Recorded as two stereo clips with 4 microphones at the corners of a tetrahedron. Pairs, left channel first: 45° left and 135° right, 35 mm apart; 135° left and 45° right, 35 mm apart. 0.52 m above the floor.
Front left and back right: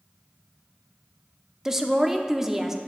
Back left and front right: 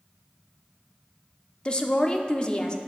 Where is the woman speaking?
160° left, 0.7 m.